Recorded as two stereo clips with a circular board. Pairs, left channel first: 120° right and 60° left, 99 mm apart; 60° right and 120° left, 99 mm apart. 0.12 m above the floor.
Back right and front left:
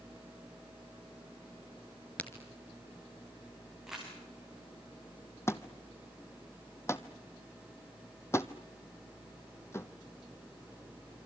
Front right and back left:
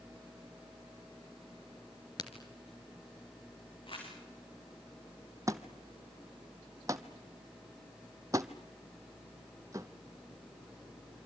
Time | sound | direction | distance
2.2 | a crack | 50° right | 2 m
3.9 | crumpling | 25° right | 7.5 m
5.5 | a thud | 175° left | 0.9 m